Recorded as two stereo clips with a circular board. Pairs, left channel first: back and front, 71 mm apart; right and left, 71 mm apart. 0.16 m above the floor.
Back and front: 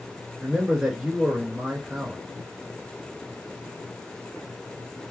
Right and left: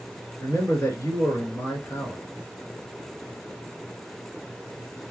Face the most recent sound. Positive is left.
turn(degrees=-70)